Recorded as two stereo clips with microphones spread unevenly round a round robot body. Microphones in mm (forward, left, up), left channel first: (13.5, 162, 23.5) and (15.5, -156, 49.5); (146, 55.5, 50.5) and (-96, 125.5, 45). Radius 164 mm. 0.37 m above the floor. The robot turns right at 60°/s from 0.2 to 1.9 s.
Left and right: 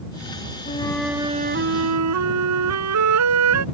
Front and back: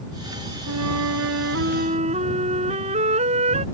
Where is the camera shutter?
I don't hear a camera shutter.